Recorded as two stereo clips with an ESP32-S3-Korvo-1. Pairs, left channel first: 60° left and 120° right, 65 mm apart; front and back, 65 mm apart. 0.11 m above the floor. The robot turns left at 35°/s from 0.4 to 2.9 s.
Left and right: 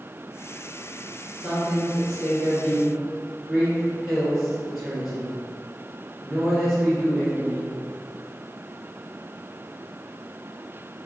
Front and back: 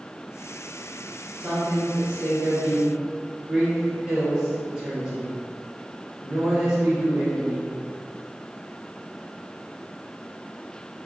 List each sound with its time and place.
1.4 s a man speaking: 160° right, 1.6 m; by 7.7 s 145° left, 1.6 m